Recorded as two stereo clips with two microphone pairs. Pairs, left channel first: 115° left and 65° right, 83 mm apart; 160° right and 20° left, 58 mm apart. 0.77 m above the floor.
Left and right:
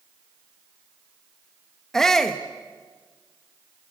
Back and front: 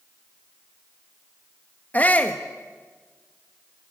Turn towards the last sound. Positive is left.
turn(degrees=-165)